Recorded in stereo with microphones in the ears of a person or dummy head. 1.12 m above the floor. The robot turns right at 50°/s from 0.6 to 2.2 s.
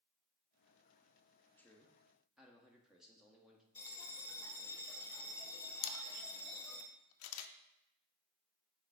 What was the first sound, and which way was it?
A man speaking, 5° left (ahead or behind).